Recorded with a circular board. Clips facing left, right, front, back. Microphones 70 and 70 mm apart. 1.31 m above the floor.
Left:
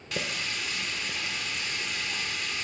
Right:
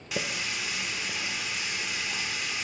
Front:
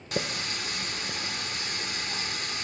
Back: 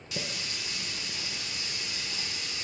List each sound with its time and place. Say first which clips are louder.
0.1 s a running tap: right 1 dB, front 6 dB; 10° right, 0.6 m